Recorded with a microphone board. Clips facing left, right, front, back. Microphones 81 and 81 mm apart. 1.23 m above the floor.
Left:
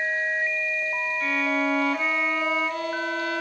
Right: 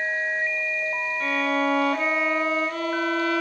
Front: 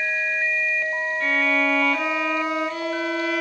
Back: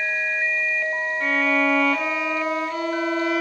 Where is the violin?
115° right, 1.3 m.